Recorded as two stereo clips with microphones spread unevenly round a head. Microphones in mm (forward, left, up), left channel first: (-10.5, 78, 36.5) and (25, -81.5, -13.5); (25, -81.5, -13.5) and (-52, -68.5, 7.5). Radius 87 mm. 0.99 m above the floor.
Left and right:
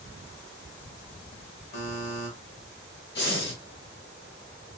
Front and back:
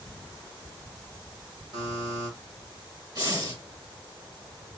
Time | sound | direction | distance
1.7 | a buzzer | 135° left | 1.3 m
3.1 | breathing | 120° left | 1.7 m